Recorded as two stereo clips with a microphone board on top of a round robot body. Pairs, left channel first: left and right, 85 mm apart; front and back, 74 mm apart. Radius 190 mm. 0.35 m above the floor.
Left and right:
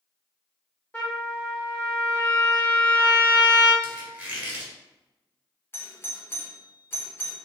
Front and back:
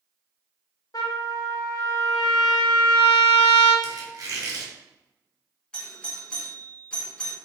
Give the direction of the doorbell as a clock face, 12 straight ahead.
10 o'clock.